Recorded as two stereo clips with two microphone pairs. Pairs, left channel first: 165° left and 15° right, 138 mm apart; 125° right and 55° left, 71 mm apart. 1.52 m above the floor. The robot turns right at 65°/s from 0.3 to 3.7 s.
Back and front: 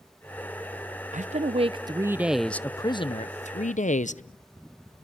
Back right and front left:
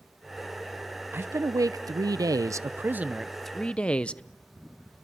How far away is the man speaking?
About 0.7 m.